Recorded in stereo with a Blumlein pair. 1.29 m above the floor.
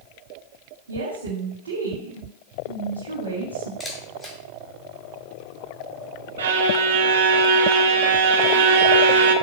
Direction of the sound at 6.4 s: 60° right.